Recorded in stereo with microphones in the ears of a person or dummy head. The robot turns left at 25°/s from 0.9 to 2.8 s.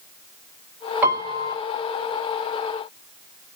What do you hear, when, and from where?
1.0 s a piano: 15° right (ahead or behind), 1.1 m; by 1.6 s 25° right (ahead or behind), 1.1 m